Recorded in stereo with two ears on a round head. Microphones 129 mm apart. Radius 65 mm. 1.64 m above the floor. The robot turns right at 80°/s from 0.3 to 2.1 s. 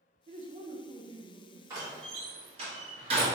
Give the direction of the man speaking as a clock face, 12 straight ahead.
3 o'clock.